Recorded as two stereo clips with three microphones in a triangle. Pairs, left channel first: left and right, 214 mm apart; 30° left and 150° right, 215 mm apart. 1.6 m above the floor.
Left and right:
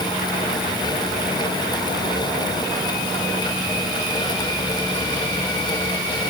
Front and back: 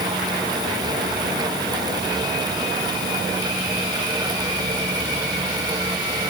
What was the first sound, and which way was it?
Only background noise.